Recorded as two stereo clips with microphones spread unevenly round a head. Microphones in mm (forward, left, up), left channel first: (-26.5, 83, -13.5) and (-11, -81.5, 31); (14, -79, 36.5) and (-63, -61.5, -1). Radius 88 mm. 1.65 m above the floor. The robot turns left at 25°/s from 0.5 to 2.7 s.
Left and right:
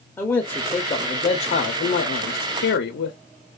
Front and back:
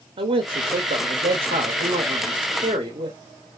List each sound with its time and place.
0.2 s a man speaking: 175° left, 0.5 m; by 3.2 s 120° left, 0.5 m